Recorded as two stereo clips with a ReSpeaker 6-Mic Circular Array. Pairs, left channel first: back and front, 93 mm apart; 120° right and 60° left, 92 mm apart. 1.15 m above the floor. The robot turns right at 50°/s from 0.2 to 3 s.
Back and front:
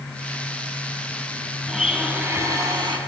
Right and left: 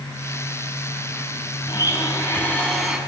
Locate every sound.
1.7 s a blender: 90° right, 2 m; by 3.0 s 25° right, 2 m